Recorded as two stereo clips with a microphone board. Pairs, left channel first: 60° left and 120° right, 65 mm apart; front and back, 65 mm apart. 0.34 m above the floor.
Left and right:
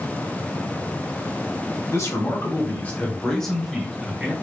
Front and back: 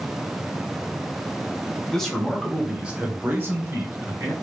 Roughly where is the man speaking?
Left.